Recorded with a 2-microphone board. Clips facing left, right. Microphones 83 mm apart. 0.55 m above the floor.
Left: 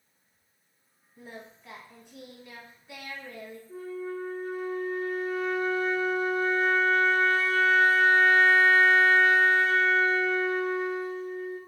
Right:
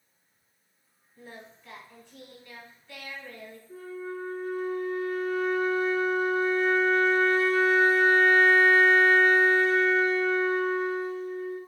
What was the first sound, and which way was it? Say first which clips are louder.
Singing: left 1 dB; 15° left (ahead or behind).